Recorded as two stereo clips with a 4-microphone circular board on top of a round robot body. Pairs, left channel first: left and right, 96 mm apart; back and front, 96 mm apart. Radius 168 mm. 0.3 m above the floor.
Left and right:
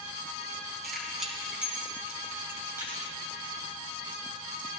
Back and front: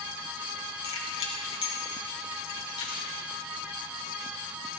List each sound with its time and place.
0.8 s keys jangling: straight behind, 3 m; by 3.0 s 155° right, 4 m